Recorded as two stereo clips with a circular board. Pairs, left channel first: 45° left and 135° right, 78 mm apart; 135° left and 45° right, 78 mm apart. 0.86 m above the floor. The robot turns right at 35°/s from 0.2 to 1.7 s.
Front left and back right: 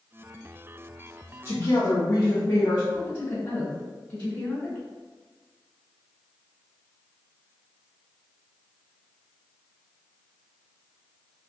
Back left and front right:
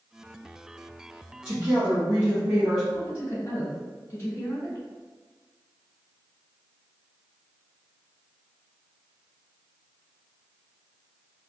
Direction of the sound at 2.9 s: 80° left.